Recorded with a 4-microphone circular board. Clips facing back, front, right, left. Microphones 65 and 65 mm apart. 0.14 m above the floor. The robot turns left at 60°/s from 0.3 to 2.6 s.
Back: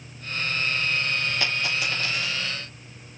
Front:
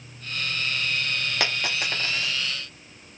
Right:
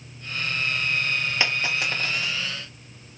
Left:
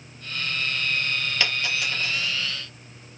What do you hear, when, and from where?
1.4 s a dropped coin: 20° right, 2.5 m; by 2.3 s 75° right, 2.5 m